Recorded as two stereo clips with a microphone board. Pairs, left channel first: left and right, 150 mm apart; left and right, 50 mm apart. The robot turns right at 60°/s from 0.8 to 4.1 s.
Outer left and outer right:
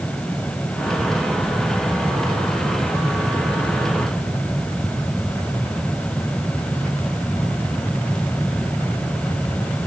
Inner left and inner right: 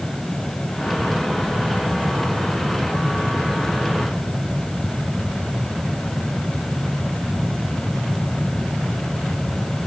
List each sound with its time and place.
Only background noise.